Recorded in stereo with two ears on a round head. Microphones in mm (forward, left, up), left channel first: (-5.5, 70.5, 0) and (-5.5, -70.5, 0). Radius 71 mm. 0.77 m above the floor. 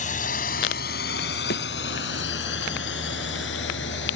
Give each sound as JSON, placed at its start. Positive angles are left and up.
{"t": 0.0, "sound": "a drone", "side_deg": 50}
{"t": 1.5, "sound": "a thud", "side_deg": 65}